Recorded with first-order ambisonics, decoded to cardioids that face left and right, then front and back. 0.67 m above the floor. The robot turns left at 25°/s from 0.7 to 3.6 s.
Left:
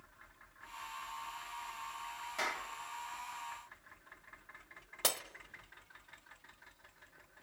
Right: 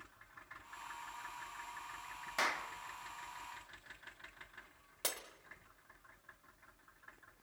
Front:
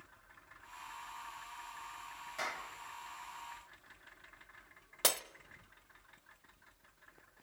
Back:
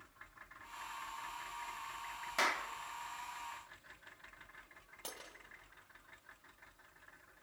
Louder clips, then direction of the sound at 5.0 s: Left 6 dB, front 16 dB; 15° left.